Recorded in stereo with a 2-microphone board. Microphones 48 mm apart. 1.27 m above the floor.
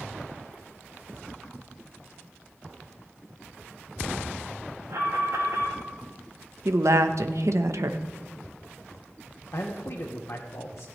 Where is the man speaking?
70° left (ahead or behind), 1.3 m.